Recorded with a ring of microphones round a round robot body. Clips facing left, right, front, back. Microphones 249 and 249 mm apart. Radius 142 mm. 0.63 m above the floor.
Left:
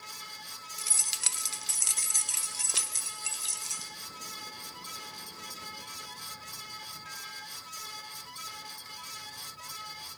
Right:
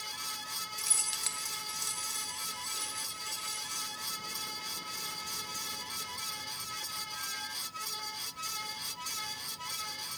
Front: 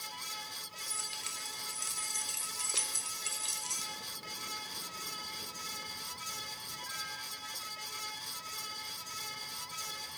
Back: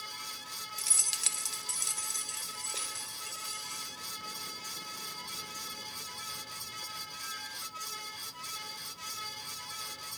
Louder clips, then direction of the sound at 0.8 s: Right 1 dB, even; 165° left.